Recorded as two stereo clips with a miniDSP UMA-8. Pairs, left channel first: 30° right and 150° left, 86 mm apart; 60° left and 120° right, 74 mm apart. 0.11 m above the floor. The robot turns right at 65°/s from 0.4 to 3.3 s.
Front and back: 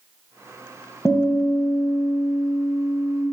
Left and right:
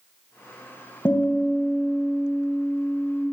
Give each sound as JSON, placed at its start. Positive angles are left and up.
{"t": 1.1, "sound": "a guitar", "azimuth_deg": 25, "distance_m": 1.0}